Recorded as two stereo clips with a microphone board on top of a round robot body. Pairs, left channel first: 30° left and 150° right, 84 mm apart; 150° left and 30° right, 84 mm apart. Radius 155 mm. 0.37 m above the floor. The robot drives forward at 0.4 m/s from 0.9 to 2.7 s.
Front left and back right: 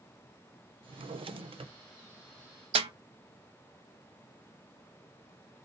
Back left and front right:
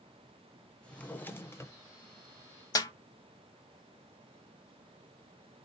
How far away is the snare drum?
About 0.6 m.